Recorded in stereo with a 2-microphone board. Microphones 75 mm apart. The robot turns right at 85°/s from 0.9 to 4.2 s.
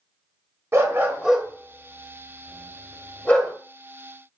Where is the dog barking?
35° right (ahead or behind), 0.5 m; by 3.5 s 5° right (ahead or behind), 0.5 m.